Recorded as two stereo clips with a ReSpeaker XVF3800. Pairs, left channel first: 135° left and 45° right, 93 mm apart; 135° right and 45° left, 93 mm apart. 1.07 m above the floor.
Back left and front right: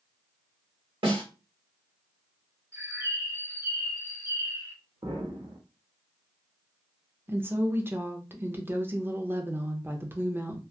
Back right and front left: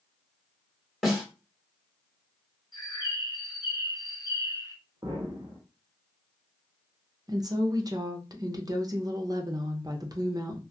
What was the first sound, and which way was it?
A snare drum, 45° right.